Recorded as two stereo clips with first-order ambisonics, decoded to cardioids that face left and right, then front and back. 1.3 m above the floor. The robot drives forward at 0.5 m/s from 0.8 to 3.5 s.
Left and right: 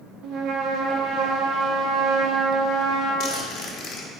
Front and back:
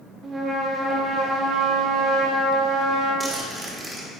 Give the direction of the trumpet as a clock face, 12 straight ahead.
4 o'clock.